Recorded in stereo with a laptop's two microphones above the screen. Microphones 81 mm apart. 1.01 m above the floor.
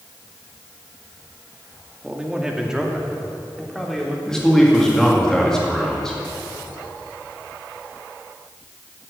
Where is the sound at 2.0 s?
15° right (ahead or behind), 1.9 m; by 4.2 s centre (ahead or behind), 3 m.